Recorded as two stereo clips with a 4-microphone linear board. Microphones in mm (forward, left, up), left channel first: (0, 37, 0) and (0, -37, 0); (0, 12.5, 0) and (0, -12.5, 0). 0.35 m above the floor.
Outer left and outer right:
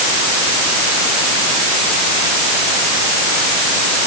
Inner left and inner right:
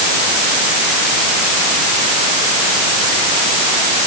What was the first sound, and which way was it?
Only background noise.